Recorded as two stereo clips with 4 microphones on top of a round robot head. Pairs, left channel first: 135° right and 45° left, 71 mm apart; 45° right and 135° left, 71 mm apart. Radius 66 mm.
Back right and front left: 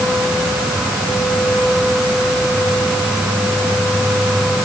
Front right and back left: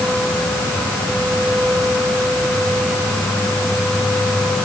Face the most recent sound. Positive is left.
No sound to turn to.